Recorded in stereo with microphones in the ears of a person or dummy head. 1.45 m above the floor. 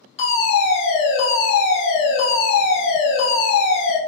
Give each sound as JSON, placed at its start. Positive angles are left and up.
{"t": 0.2, "sound": "a fire alarm", "side_deg": 35, "distance_m": 1.9}